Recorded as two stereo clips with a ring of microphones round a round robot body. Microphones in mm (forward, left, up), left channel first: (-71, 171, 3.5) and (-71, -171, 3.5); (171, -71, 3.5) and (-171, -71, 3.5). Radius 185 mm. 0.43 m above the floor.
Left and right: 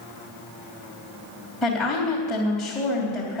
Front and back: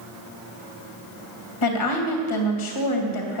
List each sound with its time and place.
1.6 s a woman speaking: straight ahead, 3 m